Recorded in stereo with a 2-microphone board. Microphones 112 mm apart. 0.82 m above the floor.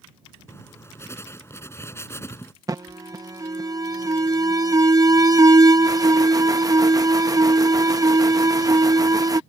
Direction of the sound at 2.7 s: 35° right (ahead or behind).